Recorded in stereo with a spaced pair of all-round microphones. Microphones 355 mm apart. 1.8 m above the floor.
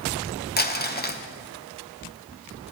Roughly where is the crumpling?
Left.